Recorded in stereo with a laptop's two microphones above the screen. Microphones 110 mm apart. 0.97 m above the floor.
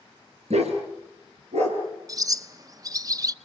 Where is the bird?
35° right (ahead or behind), 0.7 m.